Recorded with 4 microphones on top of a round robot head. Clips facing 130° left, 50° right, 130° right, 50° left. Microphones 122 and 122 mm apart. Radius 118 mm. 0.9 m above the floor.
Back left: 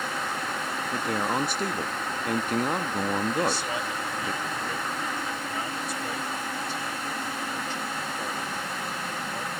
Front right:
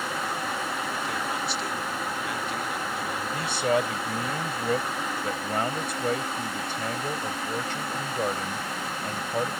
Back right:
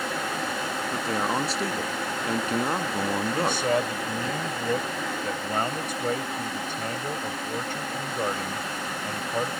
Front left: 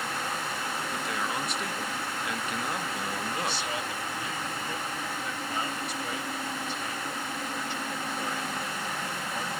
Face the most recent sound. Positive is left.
turn(degrees=-85)